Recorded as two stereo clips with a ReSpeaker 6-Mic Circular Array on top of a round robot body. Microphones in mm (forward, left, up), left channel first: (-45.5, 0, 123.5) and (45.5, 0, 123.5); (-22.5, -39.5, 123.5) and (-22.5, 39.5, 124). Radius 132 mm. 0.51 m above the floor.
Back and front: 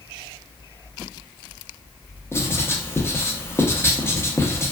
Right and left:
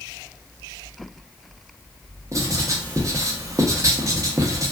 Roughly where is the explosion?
No explosion in this recording.